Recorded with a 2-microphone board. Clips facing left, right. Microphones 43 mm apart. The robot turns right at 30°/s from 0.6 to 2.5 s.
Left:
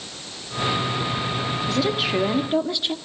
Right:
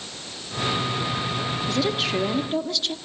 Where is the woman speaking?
Centre (ahead or behind), 1.4 m; by 3.0 s 20° left (ahead or behind), 1.4 m.